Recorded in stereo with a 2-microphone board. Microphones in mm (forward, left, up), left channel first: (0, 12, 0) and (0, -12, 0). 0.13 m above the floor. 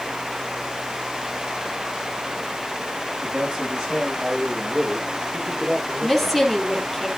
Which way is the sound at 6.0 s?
5° left (ahead or behind).